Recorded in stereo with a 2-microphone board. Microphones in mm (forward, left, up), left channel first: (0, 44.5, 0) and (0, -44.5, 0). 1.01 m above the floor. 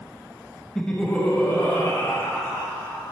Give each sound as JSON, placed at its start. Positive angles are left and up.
{"t": 0.8, "sound": "laughter", "side_deg": 5, "distance_m": 0.9}